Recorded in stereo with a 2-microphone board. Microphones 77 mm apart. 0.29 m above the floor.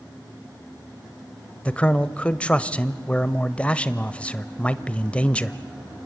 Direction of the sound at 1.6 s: 15° left (ahead or behind).